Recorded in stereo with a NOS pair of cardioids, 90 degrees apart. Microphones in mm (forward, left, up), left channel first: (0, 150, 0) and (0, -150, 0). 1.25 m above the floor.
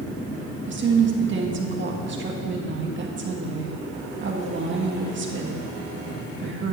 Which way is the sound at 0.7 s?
40° right.